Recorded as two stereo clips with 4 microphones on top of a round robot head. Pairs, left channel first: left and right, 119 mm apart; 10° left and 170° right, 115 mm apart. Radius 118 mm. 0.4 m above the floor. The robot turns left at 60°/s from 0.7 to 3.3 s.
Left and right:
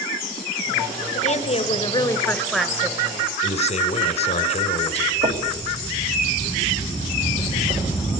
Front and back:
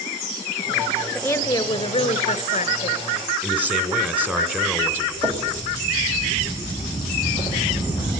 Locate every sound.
1.1 s a woman speaking: 80° left, 2.5 m; by 3.2 s 40° right, 2.5 m
3.4 s a man speaking: 115° left, 2.5 m
5.2 s knocking: 105° right, 2.5 m